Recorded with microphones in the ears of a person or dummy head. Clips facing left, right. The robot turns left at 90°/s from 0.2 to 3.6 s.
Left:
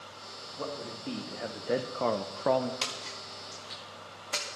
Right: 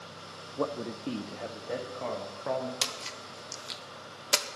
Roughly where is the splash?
Centre.